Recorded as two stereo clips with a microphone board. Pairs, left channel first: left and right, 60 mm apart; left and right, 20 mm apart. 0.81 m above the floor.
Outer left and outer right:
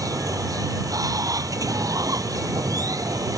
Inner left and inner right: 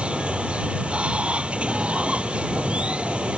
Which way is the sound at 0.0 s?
80° right.